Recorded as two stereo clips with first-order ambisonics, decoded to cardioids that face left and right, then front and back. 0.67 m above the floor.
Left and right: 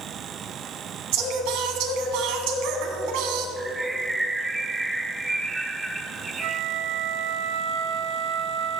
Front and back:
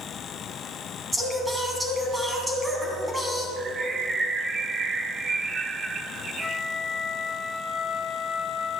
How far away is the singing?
About 1.8 m.